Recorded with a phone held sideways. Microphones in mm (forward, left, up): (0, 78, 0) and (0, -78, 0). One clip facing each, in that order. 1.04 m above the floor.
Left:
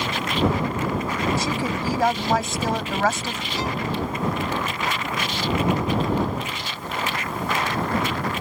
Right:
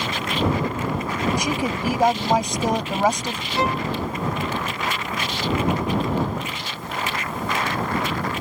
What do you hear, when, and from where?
1.4 s a woman speaking: 15° right (ahead or behind)
3.6 s a violin: 65° right (ahead or behind)